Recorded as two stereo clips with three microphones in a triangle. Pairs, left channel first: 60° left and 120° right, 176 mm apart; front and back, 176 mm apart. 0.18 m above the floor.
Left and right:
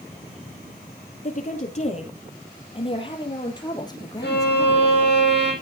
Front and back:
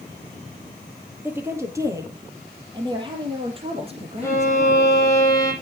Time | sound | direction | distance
1.2 | a woman speaking | 105° left | 4 m
4.2 | a violin | 70° left | 5 m